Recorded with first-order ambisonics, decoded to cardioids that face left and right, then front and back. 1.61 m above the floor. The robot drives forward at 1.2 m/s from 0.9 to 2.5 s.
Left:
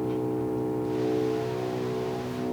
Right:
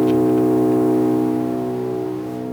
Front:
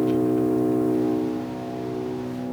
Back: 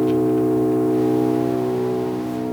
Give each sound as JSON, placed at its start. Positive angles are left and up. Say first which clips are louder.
{"t": 0.0, "sound": "an engine running", "louder": "right 13 dB, back 4 dB", "azimuth_deg": -100, "distance_m": 0.7}